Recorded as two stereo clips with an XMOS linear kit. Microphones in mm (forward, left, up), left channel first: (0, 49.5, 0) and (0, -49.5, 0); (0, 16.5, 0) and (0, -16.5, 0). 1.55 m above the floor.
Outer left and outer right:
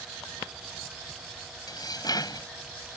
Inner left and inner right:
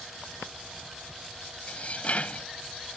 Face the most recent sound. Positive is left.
turn(degrees=40)  # may be behind; listen again after turning